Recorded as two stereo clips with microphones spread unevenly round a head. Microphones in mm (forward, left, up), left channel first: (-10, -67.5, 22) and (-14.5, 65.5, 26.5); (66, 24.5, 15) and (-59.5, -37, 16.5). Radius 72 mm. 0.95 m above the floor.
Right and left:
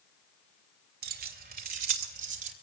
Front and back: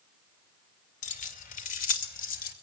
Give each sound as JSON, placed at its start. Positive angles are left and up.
{"t": 1.0, "sound": "keys jangling", "azimuth_deg": 65, "distance_m": 2.0}